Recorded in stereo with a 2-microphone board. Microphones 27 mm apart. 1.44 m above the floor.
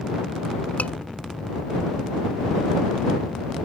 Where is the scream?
80° left.